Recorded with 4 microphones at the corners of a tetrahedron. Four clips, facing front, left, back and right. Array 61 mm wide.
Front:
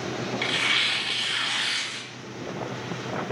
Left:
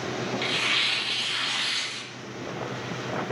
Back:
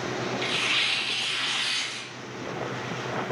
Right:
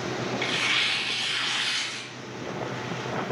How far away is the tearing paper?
About 3 m.